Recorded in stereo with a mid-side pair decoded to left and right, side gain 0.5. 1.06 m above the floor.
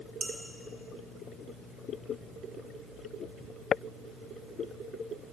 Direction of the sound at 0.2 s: 60° right.